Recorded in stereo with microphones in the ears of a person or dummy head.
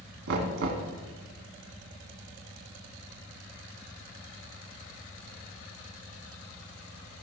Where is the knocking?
75° right (ahead or behind), 1.3 m.